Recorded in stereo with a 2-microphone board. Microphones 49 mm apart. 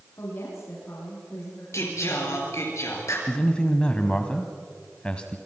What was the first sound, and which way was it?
A woman speaking, 70° left (ahead or behind).